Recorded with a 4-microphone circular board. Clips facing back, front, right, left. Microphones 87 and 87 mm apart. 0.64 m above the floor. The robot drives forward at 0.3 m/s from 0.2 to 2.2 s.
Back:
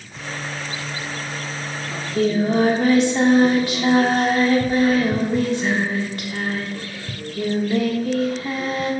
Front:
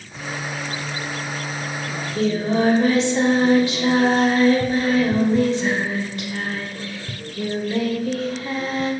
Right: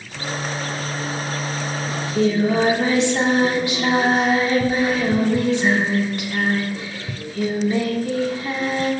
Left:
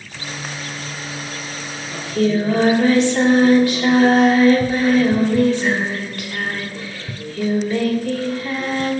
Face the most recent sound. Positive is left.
turn(degrees=-155)